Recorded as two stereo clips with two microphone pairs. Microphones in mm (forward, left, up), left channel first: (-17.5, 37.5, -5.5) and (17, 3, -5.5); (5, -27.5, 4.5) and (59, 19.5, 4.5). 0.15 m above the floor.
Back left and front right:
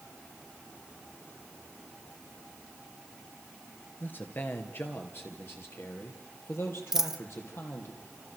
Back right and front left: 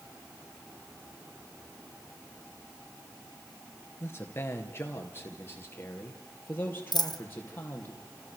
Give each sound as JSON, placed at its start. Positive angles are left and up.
{"t": 4.0, "sound": "a man speaking", "azimuth_deg": 175, "distance_m": 3.0}
{"t": 6.9, "sound": "a dropped coin", "azimuth_deg": -125, "distance_m": 1.4}